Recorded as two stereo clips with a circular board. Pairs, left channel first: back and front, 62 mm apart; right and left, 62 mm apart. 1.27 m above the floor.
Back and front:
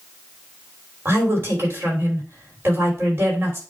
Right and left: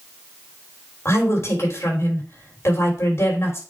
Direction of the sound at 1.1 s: 50° right.